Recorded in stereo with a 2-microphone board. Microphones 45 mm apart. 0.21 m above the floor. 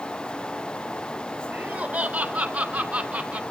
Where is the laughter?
40° right (ahead or behind), 3 m; by 3.4 s 35° right (ahead or behind), 2 m.